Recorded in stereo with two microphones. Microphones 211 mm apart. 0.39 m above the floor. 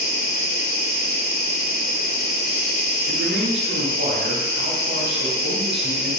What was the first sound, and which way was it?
An insect, 50° left (ahead or behind).